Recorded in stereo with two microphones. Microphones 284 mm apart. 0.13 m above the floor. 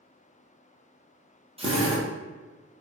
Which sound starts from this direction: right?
A drill, at 1.6 s.